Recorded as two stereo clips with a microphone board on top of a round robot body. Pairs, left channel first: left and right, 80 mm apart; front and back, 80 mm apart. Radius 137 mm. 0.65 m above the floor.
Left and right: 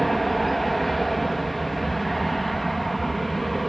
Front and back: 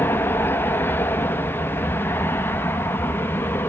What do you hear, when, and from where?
0.0 s an aircraft: straight ahead